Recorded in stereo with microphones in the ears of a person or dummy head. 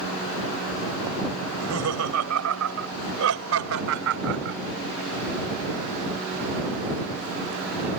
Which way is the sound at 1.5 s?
85° right.